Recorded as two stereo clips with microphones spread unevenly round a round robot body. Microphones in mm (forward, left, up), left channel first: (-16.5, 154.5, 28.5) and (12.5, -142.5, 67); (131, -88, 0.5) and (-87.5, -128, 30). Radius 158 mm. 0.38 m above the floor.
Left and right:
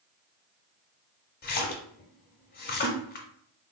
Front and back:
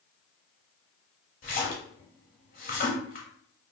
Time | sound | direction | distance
1.4 | a splash | 50° left | 0.6 m